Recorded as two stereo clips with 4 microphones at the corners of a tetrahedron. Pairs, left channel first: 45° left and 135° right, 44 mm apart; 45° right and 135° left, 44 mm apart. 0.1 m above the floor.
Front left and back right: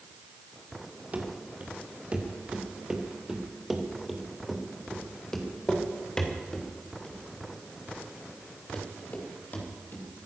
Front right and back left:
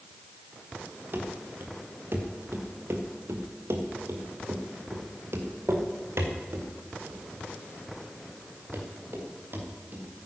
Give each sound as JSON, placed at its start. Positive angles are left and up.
{"t": 1.1, "sound": "running footsteps", "azimuth_deg": 170, "distance_m": 3.0}